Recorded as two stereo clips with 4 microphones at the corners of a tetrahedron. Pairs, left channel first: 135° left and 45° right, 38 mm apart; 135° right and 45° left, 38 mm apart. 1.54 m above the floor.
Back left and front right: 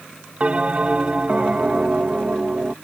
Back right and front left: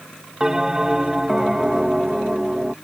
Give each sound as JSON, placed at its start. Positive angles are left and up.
{"t": 0.4, "sound": "a bell", "azimuth_deg": -20}